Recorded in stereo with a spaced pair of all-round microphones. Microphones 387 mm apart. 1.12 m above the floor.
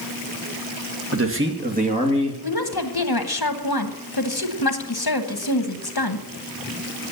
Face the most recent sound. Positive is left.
turn(degrees=75)  # may be behind; listen again after turning